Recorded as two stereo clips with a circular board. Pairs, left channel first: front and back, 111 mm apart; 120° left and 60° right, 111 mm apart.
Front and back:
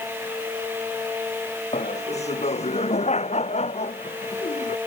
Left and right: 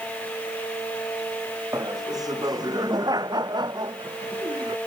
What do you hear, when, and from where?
1.7 s laughter: 5° right; by 4.8 s 15° right